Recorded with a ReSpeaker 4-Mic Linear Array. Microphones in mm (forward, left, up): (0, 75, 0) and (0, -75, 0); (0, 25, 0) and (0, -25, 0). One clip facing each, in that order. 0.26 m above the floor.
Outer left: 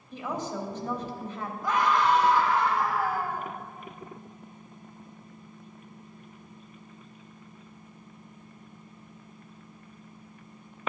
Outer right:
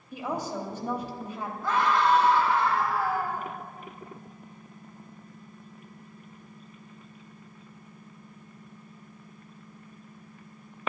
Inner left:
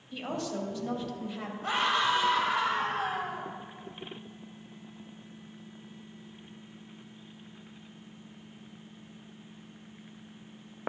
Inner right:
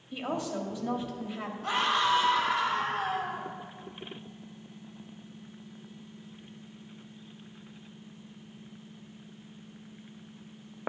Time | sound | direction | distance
0.1 | a woman speaking | 10° right (ahead or behind) | 0.9 m
1.6 | a scream | 20° left (ahead or behind) | 1.5 m